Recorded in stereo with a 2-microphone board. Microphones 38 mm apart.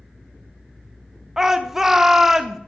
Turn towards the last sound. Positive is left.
turn(degrees=-10)  # may be behind; listen again after turning